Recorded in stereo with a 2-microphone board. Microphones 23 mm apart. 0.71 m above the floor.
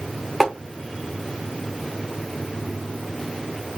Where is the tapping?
10° right (ahead or behind), 1.0 m.